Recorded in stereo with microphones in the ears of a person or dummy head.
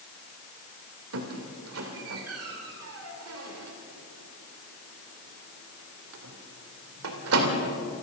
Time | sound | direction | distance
1.1 | a squeak | 80° right | 3 m